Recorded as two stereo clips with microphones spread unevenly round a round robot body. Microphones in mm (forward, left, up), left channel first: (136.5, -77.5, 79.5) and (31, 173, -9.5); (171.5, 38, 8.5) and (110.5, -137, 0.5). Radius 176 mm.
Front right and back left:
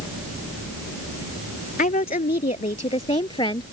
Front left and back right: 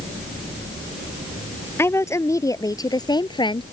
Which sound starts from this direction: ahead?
A woman speaking, at 1.8 s.